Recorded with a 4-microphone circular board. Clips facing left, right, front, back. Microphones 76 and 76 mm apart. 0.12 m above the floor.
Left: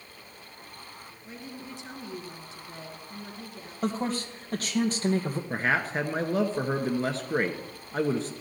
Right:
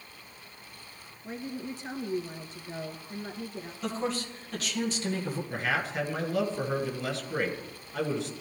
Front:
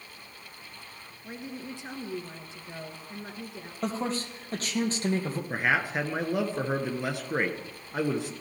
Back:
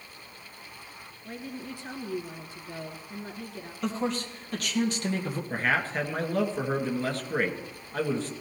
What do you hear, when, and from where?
1.2 s a woman speaking: 65° right, 2.0 m
3.8 s a man speaking: 50° left, 2.5 m
5.5 s a man speaking: 70° left, 1.7 m